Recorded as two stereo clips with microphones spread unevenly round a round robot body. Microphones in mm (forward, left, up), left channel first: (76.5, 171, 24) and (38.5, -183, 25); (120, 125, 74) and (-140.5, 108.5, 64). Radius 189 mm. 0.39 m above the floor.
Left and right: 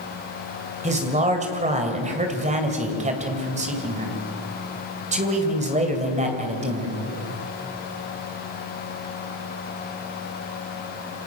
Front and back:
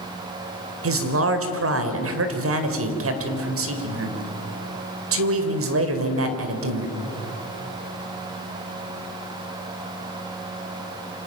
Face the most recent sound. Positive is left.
turn(degrees=-165)